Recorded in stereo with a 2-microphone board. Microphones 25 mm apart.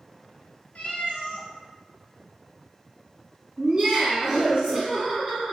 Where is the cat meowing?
55° left (ahead or behind), 0.8 m.